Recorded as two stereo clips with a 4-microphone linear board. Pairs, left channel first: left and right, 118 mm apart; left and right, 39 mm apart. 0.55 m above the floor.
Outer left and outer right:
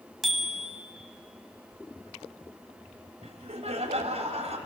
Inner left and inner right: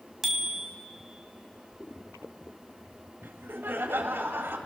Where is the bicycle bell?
Centre (ahead or behind), 3 m.